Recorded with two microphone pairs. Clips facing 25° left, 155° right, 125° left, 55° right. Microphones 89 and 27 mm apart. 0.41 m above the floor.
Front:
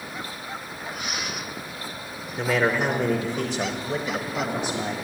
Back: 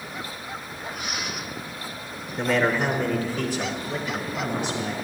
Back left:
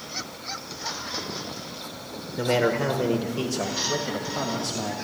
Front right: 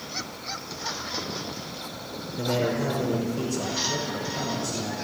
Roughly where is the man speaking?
Behind left.